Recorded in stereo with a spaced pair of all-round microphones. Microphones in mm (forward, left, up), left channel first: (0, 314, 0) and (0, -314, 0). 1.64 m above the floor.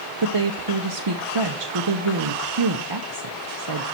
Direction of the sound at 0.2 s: 40° right (ahead or behind).